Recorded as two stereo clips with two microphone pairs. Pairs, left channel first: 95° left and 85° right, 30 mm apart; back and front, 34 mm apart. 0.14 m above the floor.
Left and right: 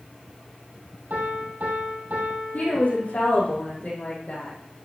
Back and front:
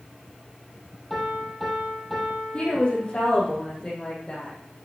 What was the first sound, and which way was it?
A piano, 95° right.